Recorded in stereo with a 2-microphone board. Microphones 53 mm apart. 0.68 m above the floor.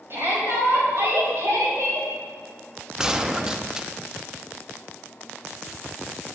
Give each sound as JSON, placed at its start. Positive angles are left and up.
{"t": 0.1, "sound": "a shout", "side_deg": -50, "distance_m": 3.5}
{"t": 3.0, "sound": "a gunshot", "side_deg": -15, "distance_m": 0.6}